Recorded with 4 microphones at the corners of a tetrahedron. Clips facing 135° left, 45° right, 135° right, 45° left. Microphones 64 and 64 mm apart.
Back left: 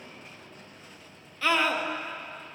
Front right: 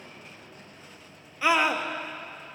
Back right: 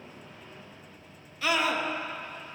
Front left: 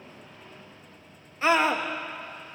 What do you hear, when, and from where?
1.4 s a scream: 15° left, 1.0 m